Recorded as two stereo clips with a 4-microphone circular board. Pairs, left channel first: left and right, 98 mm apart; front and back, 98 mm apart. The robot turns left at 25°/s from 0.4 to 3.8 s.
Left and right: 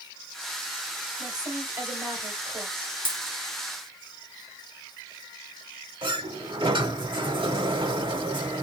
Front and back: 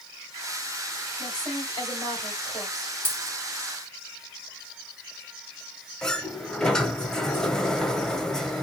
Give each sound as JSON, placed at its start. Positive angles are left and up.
{"t": 1.2, "sound": "a woman speaking", "azimuth_deg": -40, "distance_m": 2.5}
{"t": 3.0, "sound": "a dropped coin", "azimuth_deg": -110, "distance_m": 1.5}
{"t": 6.0, "sound": "a sliding door", "azimuth_deg": -85, "distance_m": 0.7}